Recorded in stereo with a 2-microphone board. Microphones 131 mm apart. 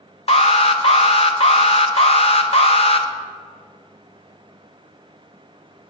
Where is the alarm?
50° left (ahead or behind), 0.6 m.